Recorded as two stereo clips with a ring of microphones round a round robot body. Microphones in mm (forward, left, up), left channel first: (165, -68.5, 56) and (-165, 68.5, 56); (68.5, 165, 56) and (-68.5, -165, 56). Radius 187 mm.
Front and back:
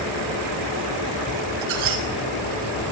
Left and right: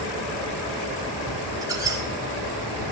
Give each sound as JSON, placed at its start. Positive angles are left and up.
{"t": 1.6, "sound": "a squeak", "azimuth_deg": 165, "distance_m": 3.0}